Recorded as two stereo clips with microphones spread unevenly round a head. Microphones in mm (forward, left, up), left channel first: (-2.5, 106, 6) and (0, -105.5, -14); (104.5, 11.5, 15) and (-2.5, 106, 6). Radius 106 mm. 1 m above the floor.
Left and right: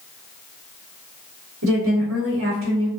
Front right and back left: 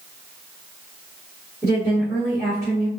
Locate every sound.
1.6 s a woman speaking: 120° right, 1.1 m